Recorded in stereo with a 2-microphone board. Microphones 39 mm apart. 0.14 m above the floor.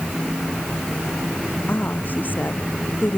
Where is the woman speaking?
45° left (ahead or behind); by 3.2 s 50° left (ahead or behind).